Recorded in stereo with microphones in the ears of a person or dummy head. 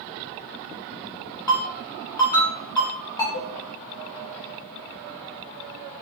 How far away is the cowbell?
About 0.6 m.